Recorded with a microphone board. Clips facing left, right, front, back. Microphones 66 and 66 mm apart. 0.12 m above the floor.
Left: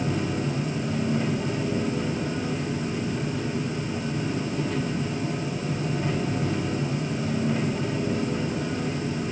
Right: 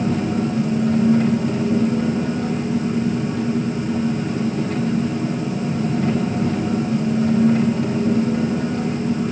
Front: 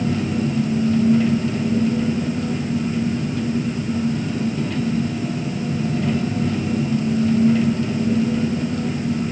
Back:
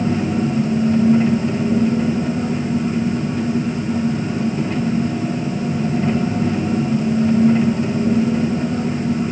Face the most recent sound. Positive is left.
turn(degrees=-120)